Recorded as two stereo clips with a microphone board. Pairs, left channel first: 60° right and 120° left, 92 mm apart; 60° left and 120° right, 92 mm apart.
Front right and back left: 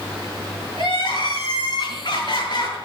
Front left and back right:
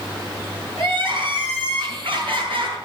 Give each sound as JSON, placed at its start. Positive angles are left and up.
{"t": 0.8, "sound": "crying", "azimuth_deg": -95, "distance_m": 5.0}